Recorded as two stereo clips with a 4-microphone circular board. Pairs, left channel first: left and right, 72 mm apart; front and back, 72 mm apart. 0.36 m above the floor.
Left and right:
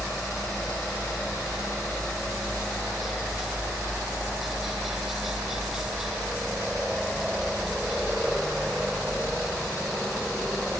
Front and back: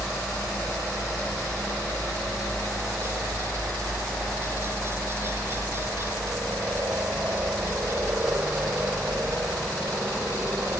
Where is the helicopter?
175° right.